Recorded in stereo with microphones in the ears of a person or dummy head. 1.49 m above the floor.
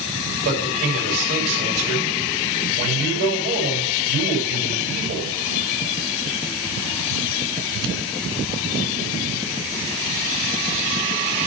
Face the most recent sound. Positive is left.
turn(degrees=-55)  # may be behind; listen again after turning